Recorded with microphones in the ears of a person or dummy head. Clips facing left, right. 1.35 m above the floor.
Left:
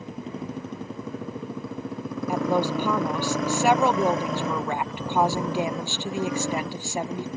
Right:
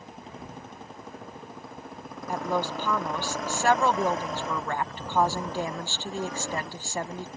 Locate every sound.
0.0 s a motorcycle: 65° left (ahead or behind)
2.3 s a woman speaking: 10° left (ahead or behind)